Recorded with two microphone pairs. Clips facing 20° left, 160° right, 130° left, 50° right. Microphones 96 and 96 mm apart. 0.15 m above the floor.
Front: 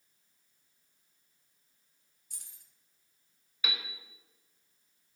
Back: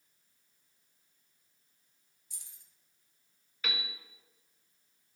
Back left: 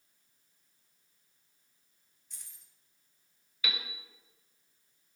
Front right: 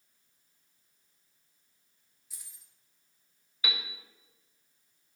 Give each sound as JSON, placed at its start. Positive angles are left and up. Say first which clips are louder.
{"t": 2.3, "sound": "keys jangling", "louder": "front 1 dB, even", "azimuth_deg": 30, "distance_m": 1.6}
{"t": 3.6, "sound": "a piano", "louder": "even, front right 2 dB", "azimuth_deg": -45, "distance_m": 1.5}